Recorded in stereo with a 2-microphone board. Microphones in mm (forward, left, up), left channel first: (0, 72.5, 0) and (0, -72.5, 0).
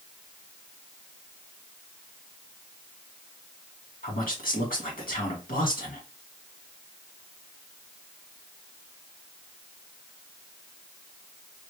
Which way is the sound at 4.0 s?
80° left.